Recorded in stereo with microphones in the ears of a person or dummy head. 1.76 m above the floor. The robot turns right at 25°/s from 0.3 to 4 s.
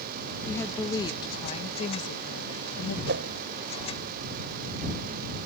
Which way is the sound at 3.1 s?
70° right (ahead or behind).